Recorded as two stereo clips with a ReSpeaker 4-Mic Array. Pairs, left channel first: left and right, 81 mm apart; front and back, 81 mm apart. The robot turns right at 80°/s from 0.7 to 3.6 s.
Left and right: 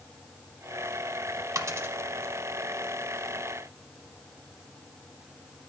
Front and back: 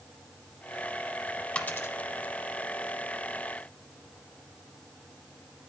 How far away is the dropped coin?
About 1.0 m.